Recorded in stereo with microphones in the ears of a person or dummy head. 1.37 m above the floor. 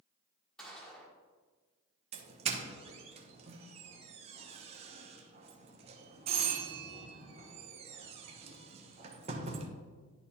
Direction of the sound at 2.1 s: 30° right (ahead or behind).